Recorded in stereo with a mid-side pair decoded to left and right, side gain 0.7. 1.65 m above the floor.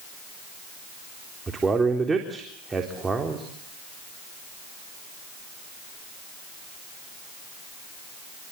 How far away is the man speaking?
About 4 m.